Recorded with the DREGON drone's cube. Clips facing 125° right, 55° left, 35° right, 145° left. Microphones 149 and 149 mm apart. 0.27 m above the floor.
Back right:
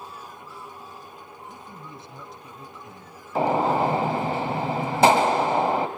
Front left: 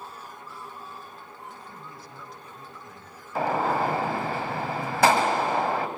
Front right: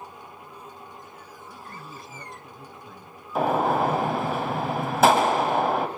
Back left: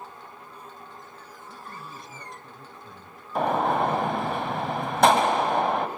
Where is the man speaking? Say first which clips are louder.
Back right 2 dB, back left 1 dB; 120° right, 1.7 m.